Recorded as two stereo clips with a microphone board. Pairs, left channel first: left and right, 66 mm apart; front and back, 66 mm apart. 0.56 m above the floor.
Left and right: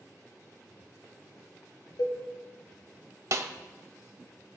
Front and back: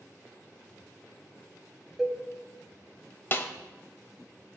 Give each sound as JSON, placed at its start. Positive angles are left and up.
{"t": 2.0, "sound": "a cowbell", "azimuth_deg": 95, "distance_m": 0.7}
{"t": 3.3, "sound": "a snare drum", "azimuth_deg": -55, "distance_m": 0.5}